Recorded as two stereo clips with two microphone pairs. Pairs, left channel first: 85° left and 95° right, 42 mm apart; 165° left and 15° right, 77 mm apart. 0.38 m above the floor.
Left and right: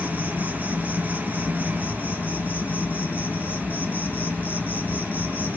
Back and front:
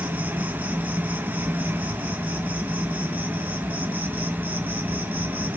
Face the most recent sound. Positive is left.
turn(degrees=45)